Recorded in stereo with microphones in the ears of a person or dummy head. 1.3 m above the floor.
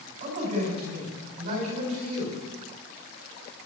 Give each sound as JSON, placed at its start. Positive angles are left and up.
{"t": 0.2, "sound": "a man speaking", "side_deg": -45, "distance_m": 7.5}